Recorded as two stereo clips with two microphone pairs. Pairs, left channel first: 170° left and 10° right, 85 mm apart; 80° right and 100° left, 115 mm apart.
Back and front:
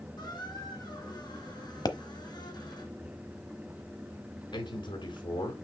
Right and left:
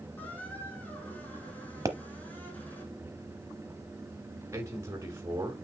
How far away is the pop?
About 0.9 m.